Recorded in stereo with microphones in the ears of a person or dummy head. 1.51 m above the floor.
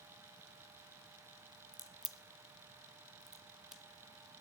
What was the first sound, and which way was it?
A crack, 5° left (ahead or behind).